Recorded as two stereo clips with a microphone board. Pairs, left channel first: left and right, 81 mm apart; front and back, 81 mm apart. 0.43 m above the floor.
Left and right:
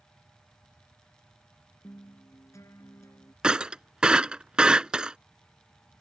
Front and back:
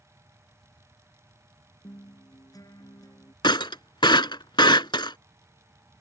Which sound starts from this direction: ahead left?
A guitar, at 1.8 s.